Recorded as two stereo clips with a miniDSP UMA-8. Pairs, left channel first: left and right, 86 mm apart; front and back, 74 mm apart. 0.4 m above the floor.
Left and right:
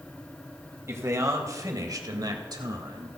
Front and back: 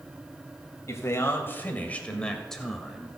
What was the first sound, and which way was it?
A man speaking, 40° right.